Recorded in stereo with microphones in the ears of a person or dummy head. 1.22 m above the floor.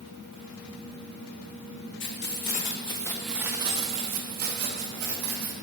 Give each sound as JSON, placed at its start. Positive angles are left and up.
{"t": 2.0, "sound": "keys jangling", "side_deg": 55, "distance_m": 0.7}